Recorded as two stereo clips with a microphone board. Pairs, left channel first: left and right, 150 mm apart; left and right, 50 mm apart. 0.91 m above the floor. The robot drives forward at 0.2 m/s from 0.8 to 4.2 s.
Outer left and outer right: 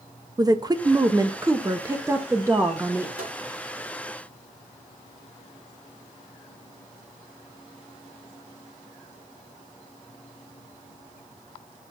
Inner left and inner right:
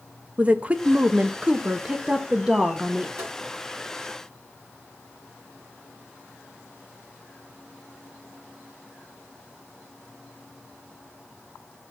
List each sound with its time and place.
0.4 s a woman speaking: 25° right (ahead or behind), 0.5 m; by 3.1 s 15° right (ahead or behind), 0.9 m
3.2 s tapping: 80° right, 6 m